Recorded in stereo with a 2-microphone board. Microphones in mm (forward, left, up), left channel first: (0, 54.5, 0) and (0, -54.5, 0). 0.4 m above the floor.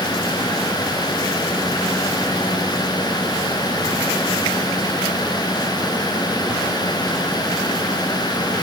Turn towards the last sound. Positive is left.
No sound to turn to.